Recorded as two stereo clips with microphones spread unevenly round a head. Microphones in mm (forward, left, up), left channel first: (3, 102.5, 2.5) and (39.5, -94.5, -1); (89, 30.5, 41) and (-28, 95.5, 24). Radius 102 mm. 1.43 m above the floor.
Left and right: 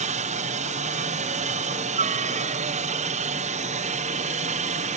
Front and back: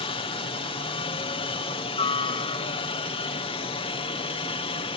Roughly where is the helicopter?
Ahead right.